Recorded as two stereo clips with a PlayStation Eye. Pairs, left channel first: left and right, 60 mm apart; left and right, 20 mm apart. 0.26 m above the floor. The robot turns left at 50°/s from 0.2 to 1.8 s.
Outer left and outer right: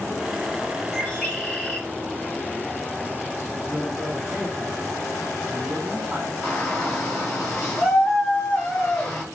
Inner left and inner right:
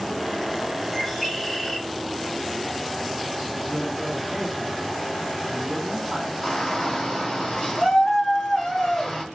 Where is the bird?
150° left, 1.2 m; by 1.9 s 105° left, 1.2 m.